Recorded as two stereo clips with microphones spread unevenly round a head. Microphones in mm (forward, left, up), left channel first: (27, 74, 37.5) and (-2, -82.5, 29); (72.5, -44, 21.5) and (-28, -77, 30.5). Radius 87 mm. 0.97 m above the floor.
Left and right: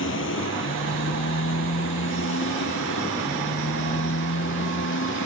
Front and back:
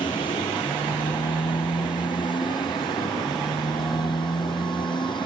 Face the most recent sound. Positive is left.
turn(degrees=80)